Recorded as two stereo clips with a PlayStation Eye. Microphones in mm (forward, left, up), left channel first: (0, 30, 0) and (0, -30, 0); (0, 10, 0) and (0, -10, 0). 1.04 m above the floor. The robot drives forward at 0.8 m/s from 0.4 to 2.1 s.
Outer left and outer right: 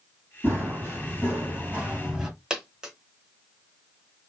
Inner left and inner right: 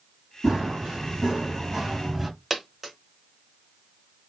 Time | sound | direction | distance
0.4 | running footsteps | 35° right (ahead or behind) | 2.5 m
2.5 | a dropped coin | 15° right (ahead or behind) | 1.0 m